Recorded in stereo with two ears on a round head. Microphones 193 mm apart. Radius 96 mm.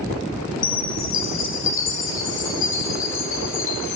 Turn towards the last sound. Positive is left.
turn(degrees=60)  # may be behind; listen again after turning